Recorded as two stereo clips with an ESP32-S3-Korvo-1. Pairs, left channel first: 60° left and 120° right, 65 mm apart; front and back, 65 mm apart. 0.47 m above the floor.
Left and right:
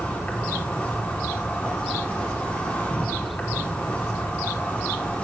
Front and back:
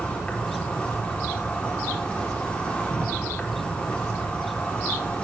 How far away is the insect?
About 2 m.